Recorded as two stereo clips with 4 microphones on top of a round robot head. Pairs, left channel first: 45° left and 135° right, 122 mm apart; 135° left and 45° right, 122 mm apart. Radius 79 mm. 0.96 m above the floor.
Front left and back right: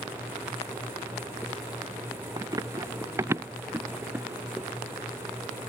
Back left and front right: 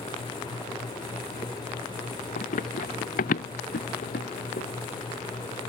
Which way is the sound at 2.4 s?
160° left.